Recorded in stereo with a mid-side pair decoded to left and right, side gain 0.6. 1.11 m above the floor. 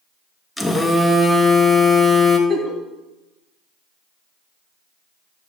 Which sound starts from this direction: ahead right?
A giggle, at 2.5 s.